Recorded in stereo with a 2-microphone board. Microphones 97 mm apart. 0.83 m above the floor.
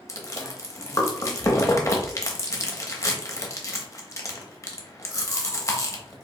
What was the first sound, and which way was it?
Chewing, 35° left (ahead or behind).